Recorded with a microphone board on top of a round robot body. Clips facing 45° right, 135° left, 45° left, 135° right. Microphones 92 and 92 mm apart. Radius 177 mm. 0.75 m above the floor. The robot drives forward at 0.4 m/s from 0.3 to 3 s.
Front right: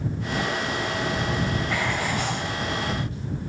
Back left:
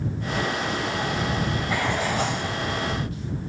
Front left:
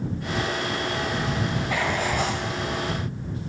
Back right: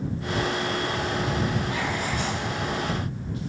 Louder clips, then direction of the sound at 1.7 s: Back left 1 dB, front left 3 dB; 50° left.